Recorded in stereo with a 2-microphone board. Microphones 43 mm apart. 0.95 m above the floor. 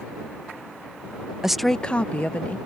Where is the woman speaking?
10° right (ahead or behind); by 2.6 s 40° left (ahead or behind).